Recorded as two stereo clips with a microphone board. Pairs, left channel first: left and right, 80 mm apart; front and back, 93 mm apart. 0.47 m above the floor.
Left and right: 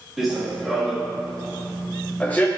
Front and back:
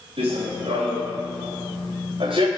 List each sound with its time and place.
0.2 s running footsteps: 175° right, 3.5 m; by 2.5 s 160° left, 1.9 m